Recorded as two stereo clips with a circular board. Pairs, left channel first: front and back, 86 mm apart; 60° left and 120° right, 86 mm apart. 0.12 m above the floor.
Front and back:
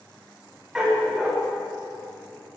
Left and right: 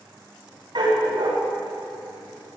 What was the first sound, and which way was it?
A dog barking, 95° right.